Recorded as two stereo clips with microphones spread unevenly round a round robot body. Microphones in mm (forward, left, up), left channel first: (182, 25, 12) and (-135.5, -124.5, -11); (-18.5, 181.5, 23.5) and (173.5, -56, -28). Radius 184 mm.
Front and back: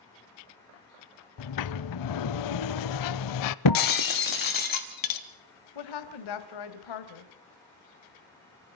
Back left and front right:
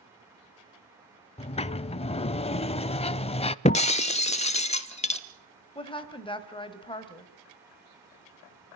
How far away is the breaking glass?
About 1.1 m.